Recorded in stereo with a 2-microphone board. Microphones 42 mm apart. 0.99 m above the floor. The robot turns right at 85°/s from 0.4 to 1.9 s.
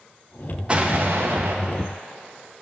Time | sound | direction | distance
0.7 | an explosion | 150° right | 0.7 m